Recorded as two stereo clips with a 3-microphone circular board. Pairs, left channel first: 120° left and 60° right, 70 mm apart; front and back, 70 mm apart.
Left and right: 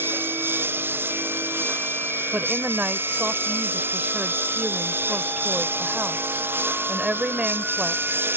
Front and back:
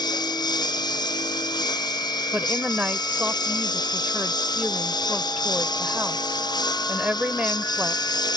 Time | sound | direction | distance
0.0 | a lawn mower | straight ahead | ?
2.3 | a woman speaking | 120° right | ?